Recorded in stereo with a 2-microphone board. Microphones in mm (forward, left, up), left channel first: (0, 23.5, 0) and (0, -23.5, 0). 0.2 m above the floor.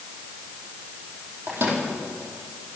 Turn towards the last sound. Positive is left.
turn(degrees=-65)  # may be behind; listen again after turning